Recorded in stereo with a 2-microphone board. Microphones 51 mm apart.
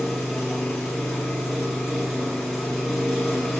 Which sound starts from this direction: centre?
An engine running, at 0.0 s.